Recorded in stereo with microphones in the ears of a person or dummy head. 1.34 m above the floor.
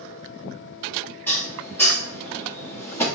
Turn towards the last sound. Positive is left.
turn(degrees=15)  # may be behind; listen again after turning